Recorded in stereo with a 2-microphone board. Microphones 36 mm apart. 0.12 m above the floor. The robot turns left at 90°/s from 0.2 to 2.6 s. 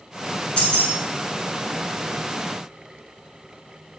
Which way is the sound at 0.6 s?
25° left (ahead or behind).